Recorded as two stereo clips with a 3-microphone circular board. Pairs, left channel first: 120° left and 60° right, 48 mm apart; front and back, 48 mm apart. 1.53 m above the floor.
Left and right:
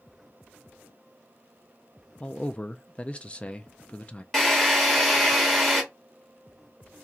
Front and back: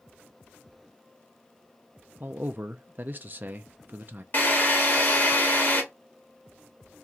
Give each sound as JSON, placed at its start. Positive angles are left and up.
{"t": 2.2, "sound": "a man speaking", "azimuth_deg": 170, "distance_m": 0.5}
{"t": 4.3, "sound": "a drill", "azimuth_deg": 40, "distance_m": 1.9}